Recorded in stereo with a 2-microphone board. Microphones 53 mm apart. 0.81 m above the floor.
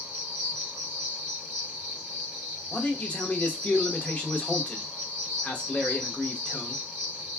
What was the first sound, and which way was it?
An insect, 35° left (ahead or behind).